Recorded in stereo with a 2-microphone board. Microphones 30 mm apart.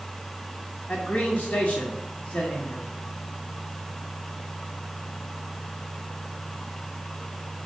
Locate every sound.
0.9 s a man speaking: 65° left (ahead or behind), 1.7 m